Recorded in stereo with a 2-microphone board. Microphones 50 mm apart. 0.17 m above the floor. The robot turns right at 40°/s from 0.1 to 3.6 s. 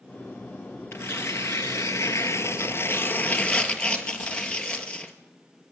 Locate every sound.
0.9 s tearing paper: 50° left, 1.7 m; by 5.1 s 160° left, 1.7 m